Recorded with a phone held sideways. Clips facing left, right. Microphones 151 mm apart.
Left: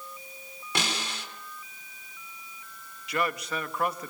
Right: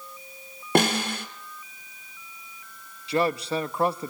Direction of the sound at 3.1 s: 30° right (ahead or behind).